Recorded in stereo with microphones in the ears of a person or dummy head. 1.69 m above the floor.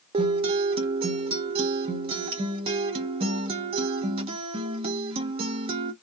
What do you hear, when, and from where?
0.1 s a guitar: 30° right (ahead or behind), 0.6 m